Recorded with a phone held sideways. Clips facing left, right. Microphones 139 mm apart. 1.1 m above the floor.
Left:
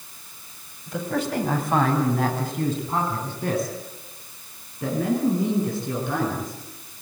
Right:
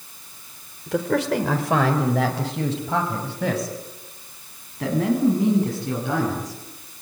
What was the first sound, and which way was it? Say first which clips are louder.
A man speaking: right 5 dB; 80° right.